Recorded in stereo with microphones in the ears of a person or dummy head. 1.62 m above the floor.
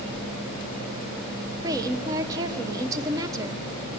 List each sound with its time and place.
1.6 s a woman speaking: 20° right (ahead or behind), 0.9 m